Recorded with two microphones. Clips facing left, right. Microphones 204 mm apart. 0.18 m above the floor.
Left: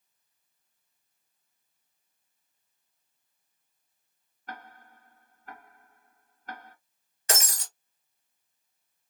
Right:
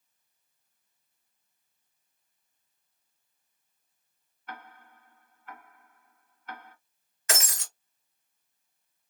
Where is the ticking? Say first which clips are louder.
Left 1 dB; 40° left (ahead or behind), 0.8 m.